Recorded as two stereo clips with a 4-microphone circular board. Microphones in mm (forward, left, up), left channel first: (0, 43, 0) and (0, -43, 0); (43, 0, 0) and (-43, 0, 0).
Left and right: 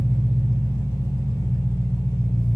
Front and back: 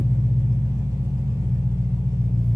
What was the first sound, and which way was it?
An engine running, 130° left.